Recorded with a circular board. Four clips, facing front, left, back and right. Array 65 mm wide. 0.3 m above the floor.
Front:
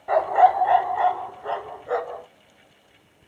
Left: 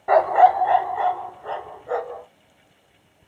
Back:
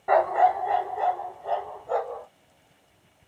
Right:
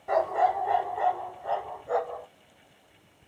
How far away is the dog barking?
About 0.5 m.